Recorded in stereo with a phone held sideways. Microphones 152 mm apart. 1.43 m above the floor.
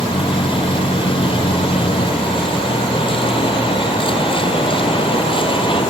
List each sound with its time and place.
0.0 s a vehicle: 35° left (ahead or behind)